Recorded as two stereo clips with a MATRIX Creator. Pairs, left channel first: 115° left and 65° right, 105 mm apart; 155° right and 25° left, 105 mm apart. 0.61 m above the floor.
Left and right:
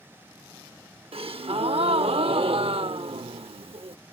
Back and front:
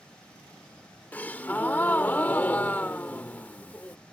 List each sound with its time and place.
1.1 s a gasp: 85° right